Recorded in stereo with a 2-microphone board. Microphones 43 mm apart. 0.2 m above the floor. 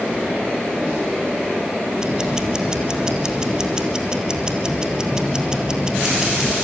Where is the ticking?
15° right (ahead or behind), 2.0 m.